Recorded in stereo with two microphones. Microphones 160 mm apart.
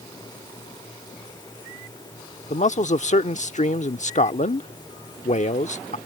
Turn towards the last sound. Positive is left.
turn(degrees=50)  # may be behind; listen again after turning